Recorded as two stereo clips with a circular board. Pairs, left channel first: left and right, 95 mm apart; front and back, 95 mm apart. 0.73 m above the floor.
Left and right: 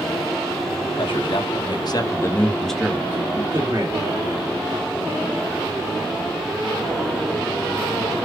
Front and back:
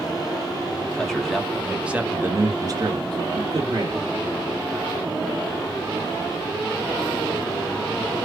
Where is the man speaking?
85° left, 1.3 m; by 4.0 s 140° right, 1.3 m.